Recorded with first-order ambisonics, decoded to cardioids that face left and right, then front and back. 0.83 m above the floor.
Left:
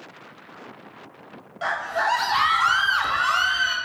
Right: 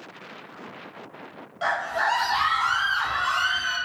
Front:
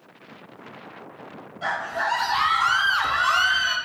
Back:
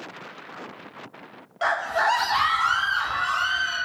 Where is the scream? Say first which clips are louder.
Even, back 3 dB; straight behind, 0.7 m; by 3.8 s 30° left, 1.1 m.